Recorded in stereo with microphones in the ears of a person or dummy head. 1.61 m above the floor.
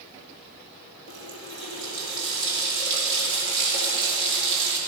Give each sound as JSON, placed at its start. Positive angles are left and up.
{"t": 1.1, "sound": "a running tap", "side_deg": -70, "distance_m": 3.5}